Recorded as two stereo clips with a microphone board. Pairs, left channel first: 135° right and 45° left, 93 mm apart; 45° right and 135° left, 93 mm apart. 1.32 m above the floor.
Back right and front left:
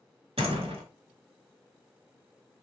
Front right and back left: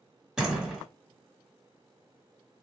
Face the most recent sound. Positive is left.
turn(degrees=50)